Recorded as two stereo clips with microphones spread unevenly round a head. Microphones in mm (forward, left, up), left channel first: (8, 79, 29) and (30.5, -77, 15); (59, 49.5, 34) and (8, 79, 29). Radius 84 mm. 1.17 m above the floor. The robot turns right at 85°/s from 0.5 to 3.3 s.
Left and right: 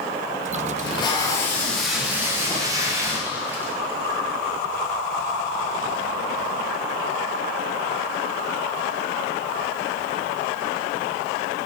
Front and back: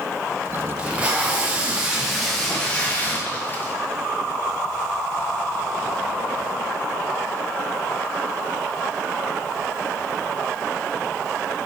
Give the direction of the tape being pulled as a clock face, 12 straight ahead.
8 o'clock.